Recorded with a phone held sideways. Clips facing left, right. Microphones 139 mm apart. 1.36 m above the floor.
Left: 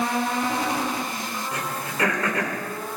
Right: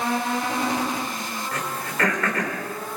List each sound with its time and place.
1.5 s throat clearing: 15° left (ahead or behind), 2.5 m